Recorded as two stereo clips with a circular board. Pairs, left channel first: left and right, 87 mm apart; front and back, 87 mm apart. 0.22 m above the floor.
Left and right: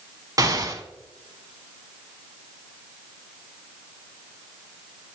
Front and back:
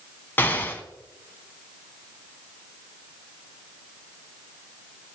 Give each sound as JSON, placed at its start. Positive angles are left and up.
{"t": 0.4, "sound": "an explosion", "azimuth_deg": -60, "distance_m": 1.0}